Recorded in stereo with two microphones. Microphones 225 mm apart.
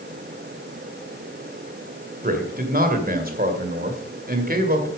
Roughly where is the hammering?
No hammering in this recording.